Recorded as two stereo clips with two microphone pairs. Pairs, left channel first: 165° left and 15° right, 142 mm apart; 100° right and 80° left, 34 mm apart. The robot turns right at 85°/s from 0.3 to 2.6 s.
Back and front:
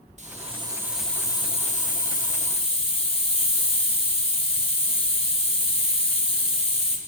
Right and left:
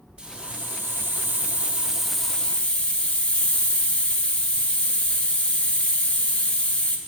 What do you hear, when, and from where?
0.2 s a hiss: 15° left, 0.7 m; by 7.0 s 150° right, 0.7 m